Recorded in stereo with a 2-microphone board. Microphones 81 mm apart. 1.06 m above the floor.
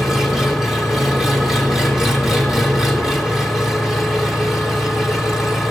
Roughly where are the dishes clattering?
I don't hear dishes clattering.